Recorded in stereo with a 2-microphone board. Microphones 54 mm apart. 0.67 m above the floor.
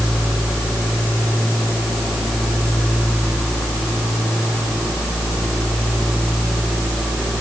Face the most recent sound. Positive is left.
No sound to turn to.